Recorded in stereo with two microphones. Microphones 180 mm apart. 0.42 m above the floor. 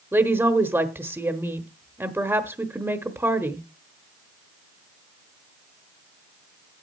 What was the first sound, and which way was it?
A woman speaking, 15° right (ahead or behind).